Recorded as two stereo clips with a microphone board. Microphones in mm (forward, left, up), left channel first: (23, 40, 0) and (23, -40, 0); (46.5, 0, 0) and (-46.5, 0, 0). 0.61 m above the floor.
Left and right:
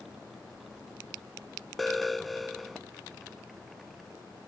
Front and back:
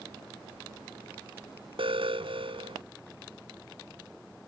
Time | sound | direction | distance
1.8 | an alarm | straight behind | ?